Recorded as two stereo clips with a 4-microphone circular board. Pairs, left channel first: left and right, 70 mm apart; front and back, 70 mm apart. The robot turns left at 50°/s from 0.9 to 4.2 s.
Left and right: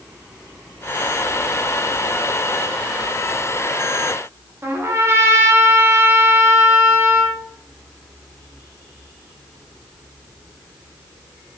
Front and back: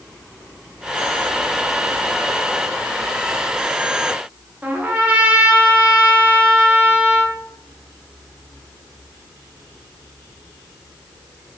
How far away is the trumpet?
About 0.6 m.